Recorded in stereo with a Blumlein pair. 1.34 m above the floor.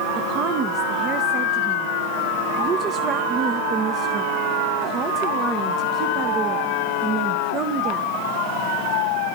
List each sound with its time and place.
0.1 s a woman speaking: 30° right, 1.1 m